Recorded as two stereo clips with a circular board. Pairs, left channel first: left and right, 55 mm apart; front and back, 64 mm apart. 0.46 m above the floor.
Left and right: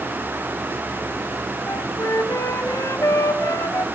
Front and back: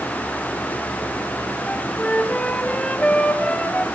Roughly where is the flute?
Left.